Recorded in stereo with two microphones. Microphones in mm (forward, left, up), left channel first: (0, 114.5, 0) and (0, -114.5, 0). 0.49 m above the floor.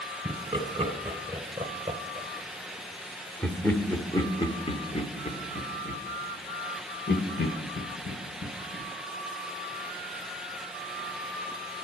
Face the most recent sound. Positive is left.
turn(degrees=60)  # may be behind; listen again after turning